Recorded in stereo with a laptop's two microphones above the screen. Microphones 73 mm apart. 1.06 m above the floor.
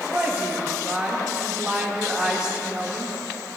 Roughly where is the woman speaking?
Centre.